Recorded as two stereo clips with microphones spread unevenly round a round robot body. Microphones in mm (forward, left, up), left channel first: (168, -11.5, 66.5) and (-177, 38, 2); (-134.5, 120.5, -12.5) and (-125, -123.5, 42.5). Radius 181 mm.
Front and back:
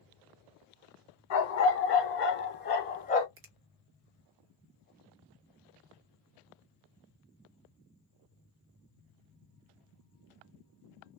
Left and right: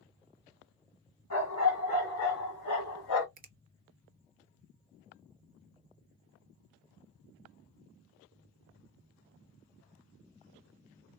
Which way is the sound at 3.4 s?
150° right.